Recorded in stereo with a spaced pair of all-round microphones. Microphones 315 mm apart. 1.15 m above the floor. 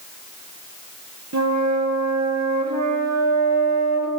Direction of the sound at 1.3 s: 55° right (ahead or behind).